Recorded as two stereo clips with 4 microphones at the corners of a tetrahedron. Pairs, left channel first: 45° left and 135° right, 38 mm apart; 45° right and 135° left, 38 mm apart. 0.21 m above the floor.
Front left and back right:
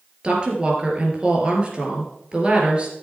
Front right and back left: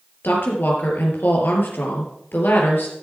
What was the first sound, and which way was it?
A woman speaking, 70° right.